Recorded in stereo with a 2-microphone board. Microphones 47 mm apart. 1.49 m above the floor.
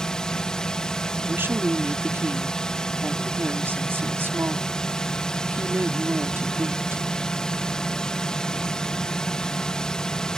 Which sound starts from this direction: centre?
A drone, at 0.0 s.